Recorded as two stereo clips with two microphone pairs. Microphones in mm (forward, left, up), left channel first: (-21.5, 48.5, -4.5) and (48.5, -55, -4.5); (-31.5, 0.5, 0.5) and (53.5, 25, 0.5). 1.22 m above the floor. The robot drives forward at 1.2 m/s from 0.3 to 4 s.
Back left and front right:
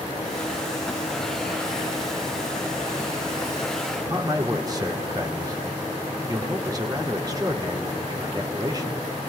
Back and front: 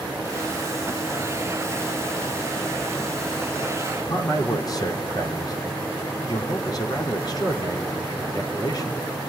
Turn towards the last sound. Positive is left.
turn(degrees=-115)